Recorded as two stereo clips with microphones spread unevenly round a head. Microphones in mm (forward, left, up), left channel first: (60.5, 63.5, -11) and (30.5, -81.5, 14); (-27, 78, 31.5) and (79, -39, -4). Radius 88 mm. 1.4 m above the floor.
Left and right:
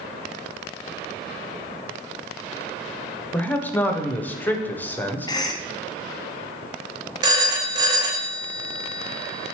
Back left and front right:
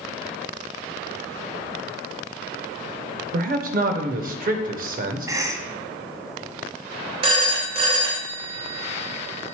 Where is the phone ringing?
110° right, 0.5 m.